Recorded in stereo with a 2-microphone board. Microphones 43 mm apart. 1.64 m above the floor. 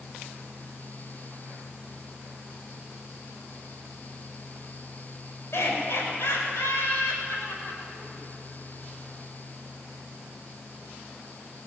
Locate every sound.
5.5 s laughter: 70° left (ahead or behind), 8 m; by 8.2 s 55° left (ahead or behind), 8 m